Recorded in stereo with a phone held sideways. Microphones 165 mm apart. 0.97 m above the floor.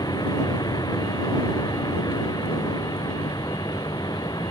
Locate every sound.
0.0 s a vehicle: 25° left (ahead or behind)